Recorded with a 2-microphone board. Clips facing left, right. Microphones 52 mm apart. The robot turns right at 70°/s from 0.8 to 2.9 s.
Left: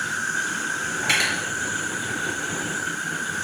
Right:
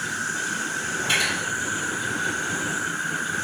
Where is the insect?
150° left, 4 m; by 3.5 s 65° right, 4 m.